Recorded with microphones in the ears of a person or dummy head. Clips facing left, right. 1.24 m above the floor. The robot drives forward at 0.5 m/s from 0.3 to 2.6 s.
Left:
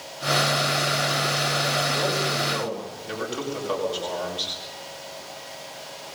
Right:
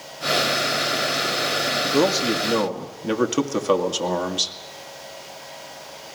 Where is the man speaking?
85° right, 1.7 m; by 4.5 s 70° right (ahead or behind), 1.8 m.